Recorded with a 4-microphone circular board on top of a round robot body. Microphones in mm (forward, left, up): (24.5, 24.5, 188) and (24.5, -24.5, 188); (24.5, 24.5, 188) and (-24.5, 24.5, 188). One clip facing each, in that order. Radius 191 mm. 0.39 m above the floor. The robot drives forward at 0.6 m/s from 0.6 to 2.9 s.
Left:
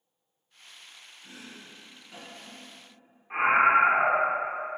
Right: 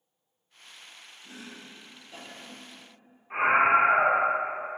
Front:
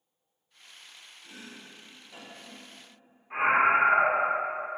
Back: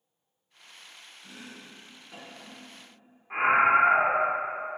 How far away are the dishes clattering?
No dishes clattering in this recording.